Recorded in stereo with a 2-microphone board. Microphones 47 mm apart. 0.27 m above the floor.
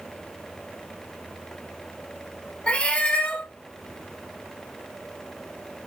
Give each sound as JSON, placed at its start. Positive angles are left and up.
{"t": 2.7, "sound": "a cat meowing", "side_deg": 25, "distance_m": 0.7}